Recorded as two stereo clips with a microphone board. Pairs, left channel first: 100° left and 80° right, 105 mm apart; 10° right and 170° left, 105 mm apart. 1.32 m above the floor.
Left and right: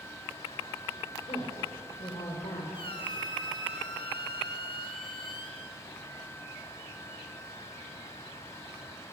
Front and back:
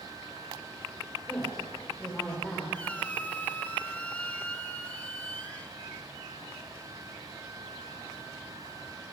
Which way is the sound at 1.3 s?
70° left.